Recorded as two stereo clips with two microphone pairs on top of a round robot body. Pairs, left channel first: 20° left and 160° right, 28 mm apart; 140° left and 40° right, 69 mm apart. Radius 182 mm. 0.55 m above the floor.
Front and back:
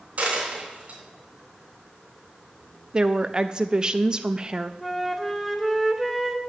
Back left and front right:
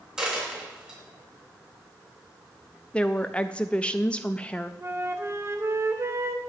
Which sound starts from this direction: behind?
A woman speaking, at 2.9 s.